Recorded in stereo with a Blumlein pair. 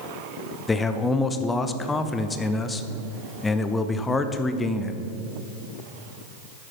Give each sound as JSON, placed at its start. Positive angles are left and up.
{"t": 0.7, "sound": "a man speaking", "azimuth_deg": 10, "distance_m": 0.6}